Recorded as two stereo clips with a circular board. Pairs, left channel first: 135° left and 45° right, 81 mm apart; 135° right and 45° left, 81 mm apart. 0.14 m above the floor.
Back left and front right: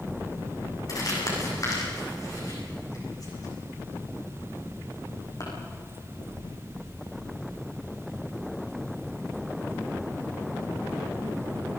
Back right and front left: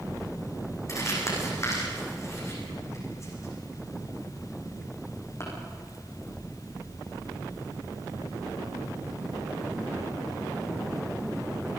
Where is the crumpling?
175° left, 8 m.